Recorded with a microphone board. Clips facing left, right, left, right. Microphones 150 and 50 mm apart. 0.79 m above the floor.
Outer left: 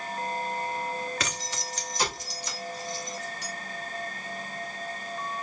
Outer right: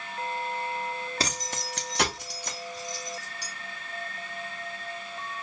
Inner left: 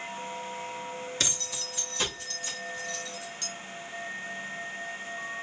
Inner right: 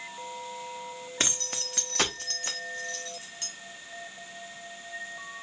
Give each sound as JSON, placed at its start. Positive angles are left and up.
{"t": 1.2, "sound": "keys jangling", "side_deg": -30, "distance_m": 1.0}